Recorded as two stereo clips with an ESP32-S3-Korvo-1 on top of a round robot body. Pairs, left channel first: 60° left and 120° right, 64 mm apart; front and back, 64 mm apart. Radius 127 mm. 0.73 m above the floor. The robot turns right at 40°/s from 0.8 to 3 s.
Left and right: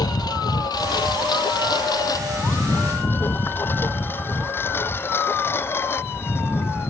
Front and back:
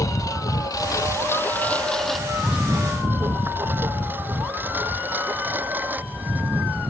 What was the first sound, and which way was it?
A lawn mower, 40° left.